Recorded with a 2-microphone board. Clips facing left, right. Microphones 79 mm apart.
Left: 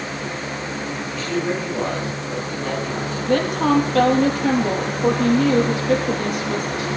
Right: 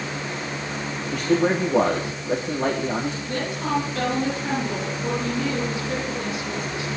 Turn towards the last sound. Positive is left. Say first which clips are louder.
# left 13 dB
turn(degrees=70)  # may be behind; listen again after turning